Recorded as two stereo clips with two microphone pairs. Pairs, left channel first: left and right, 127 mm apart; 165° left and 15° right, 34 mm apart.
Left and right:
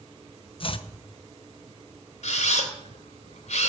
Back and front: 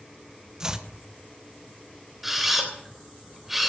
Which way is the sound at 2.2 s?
75° left.